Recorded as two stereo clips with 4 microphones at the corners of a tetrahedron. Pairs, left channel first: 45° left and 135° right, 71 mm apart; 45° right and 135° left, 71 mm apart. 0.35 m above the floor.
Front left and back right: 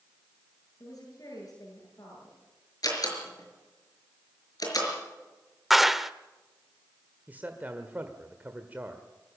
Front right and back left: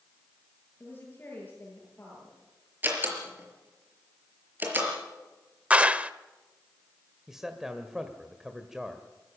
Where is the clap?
145° left, 0.7 m.